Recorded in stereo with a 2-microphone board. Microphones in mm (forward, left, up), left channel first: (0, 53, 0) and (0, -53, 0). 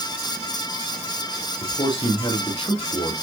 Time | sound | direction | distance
1.6 | a man speaking | 60° left (ahead or behind) | 6 m